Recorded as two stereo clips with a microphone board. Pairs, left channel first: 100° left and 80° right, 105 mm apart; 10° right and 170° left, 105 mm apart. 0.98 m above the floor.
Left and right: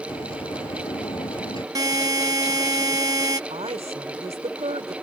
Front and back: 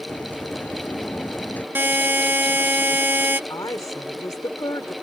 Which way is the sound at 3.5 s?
70° right.